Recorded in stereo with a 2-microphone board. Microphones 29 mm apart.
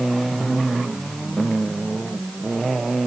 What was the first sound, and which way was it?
Only background noise.